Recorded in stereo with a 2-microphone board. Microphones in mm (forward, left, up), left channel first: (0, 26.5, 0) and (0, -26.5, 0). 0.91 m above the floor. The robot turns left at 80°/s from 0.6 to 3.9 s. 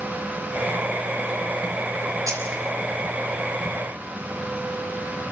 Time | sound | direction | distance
2.3 | keys jangling | 85° right | 5 m